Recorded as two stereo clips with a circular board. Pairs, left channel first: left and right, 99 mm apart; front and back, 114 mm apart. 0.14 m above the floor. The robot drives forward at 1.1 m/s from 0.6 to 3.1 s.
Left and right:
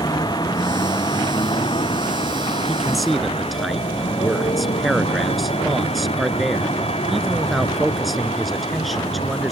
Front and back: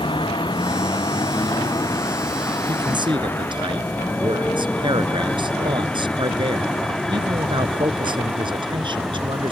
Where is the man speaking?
Straight behind.